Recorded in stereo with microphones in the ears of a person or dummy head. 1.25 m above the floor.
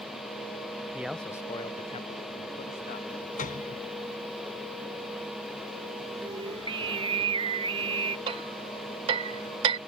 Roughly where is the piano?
Left.